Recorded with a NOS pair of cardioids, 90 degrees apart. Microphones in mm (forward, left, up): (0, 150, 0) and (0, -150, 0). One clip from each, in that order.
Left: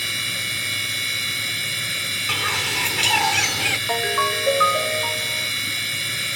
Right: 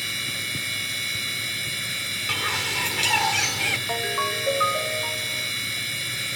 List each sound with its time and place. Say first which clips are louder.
0.0 s a machine running: left 4 dB; 25° left
2.3 s a bird: left 2 dB; 15° left
3.9 s a ringtone: left 4 dB; 35° left